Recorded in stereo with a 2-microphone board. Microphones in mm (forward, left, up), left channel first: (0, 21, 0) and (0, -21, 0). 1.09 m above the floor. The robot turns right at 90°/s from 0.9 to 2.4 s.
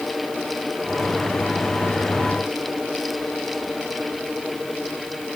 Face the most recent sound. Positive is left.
No sound to turn to.